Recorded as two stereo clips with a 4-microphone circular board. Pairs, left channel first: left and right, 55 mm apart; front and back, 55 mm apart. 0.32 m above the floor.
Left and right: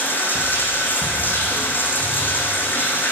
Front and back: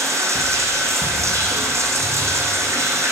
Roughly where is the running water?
Behind left.